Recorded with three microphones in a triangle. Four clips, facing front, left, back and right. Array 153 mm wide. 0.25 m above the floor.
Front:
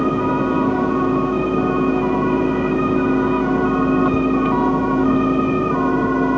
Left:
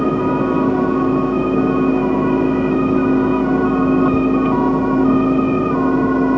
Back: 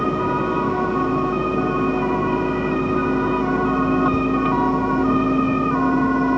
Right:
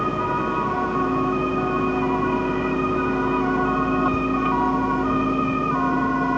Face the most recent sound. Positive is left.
No sound to turn to.